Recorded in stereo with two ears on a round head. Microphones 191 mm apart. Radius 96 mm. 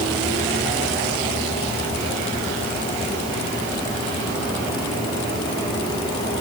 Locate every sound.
Only background noise.